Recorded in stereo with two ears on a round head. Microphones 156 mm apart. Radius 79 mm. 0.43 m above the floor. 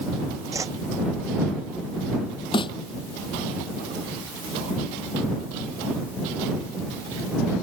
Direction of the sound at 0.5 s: 20° right (ahead or behind).